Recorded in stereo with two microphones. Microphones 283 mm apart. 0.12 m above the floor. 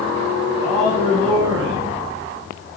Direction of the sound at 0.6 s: 15° right (ahead or behind).